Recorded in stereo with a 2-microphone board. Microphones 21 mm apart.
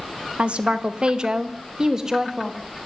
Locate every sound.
0.4 s a woman speaking: 60° right (ahead or behind), 1.8 m; by 2.9 s 20° right (ahead or behind), 3.5 m